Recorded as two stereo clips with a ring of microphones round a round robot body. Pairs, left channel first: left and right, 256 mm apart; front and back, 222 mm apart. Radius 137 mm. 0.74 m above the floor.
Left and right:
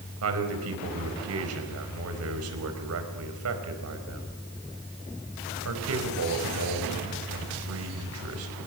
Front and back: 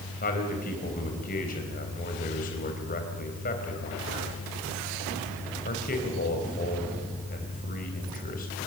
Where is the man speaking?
60° right, 4.5 m.